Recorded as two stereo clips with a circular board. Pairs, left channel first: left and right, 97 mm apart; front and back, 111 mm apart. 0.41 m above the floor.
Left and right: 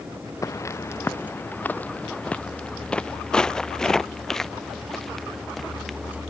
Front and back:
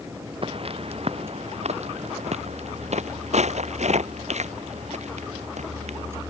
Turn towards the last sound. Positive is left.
turn(degrees=180)